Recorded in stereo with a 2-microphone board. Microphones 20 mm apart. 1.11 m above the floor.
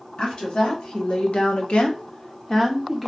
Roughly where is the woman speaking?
Left.